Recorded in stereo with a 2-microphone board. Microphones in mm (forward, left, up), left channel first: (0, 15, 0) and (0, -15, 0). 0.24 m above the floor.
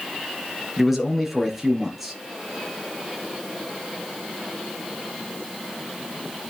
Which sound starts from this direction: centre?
A man speaking, at 0.8 s.